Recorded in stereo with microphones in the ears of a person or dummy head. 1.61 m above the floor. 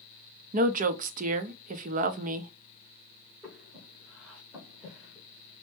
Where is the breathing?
5° right (ahead or behind), 1.3 m.